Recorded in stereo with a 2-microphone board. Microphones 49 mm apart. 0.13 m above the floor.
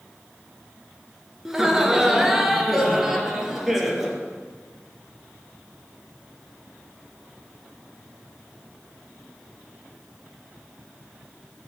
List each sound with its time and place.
1.4 s laughter: 10° right (ahead or behind), 1.8 m; by 4.2 s 5° right (ahead or behind), 3.5 m